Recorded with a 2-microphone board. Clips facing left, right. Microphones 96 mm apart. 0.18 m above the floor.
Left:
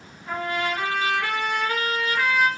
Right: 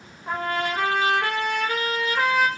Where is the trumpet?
50° right (ahead or behind), 0.5 m.